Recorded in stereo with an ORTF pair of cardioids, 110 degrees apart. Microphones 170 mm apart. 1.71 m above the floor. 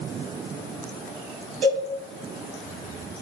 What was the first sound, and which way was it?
A cowbell, 50° right.